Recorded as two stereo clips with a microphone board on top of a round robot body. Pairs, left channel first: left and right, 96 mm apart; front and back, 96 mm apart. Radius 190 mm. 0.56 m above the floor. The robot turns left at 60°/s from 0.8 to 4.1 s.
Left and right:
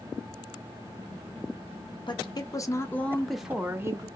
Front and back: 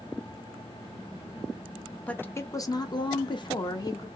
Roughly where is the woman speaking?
Left.